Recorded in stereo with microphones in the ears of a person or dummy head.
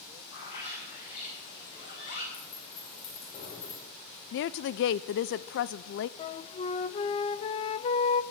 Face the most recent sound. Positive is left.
turn(degrees=35)  # may be behind; listen again after turning